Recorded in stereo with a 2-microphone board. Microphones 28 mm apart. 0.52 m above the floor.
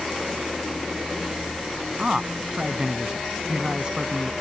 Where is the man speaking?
25° right (ahead or behind).